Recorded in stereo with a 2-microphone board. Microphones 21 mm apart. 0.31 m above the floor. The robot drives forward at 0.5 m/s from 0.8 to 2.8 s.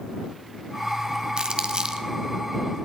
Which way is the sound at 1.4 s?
55° right (ahead or behind).